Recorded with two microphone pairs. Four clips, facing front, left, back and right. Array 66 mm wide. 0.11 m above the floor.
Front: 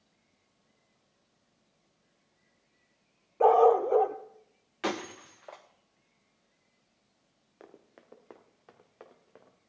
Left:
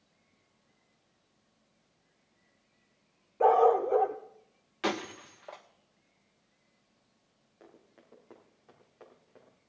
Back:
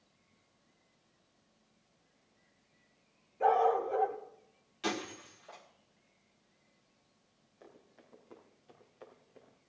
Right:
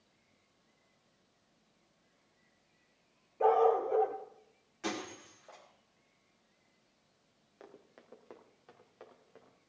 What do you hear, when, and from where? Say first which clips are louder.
3.4 s a dog barking: left 4 dB, front 7 dB; 25° left, 1.0 m
4.8 s breaking glass: left 6 dB, front 4 dB; 45° left, 1.9 m
7.6 s running footsteps: right 2 dB, front 4 dB; 25° right, 2.5 m; by 9.6 s 5° right, 3.5 m